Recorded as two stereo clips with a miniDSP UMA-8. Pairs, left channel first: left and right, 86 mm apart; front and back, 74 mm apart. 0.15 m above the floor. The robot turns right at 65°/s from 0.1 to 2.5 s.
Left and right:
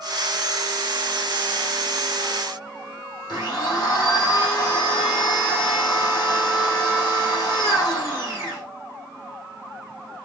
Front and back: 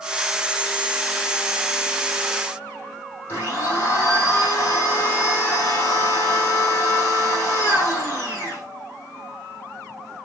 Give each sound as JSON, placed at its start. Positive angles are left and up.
{"t": 3.3, "sound": "a blender", "azimuth_deg": 50, "distance_m": 5.5}